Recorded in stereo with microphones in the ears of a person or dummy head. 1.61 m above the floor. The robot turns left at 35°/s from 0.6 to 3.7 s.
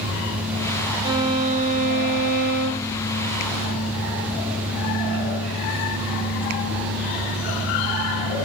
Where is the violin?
30° right, 0.7 m; by 2.9 s 95° right, 0.7 m.